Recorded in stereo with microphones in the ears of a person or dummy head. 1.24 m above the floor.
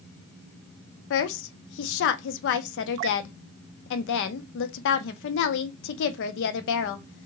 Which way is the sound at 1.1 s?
65° left (ahead or behind).